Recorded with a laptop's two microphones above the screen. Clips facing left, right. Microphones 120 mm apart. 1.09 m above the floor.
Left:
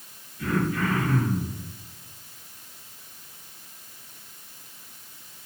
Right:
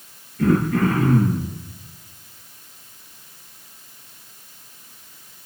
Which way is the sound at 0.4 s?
65° right (ahead or behind).